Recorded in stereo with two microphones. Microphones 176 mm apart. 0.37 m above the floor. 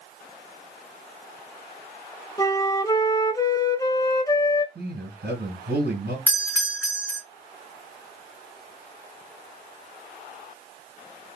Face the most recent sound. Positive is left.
turn(degrees=-10)  # may be behind; listen again after turning